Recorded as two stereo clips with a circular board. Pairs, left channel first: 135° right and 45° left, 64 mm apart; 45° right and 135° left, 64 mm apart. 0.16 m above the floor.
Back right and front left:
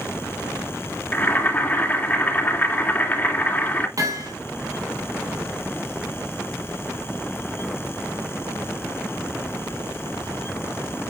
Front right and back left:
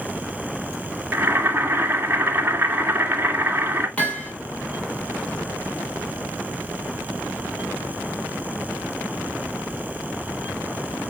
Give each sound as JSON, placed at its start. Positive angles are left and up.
{"t": 1.1, "sound": "boiling", "azimuth_deg": 180, "distance_m": 2.5}
{"t": 4.0, "sound": "hammering", "azimuth_deg": 25, "distance_m": 3.5}